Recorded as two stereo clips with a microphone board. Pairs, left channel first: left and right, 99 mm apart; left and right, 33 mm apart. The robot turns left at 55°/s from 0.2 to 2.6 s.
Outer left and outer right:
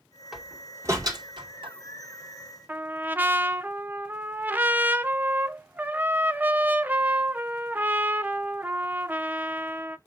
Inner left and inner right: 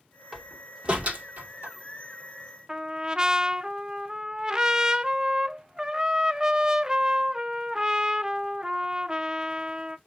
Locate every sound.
0.3 s a door slam: 5° right (ahead or behind), 2.5 m; by 1.7 s 70° right (ahead or behind), 2.5 m
2.7 s a trumpet: 20° right (ahead or behind), 0.7 m